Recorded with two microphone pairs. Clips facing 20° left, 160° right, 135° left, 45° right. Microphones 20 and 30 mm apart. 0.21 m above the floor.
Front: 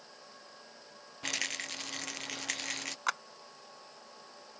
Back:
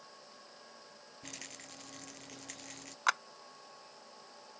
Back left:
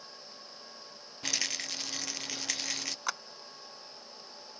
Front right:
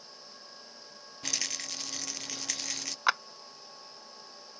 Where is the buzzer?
I don't hear a buzzer.